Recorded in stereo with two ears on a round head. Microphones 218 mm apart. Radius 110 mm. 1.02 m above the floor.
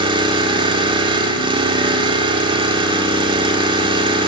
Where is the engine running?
20° right (ahead or behind), 1.9 m.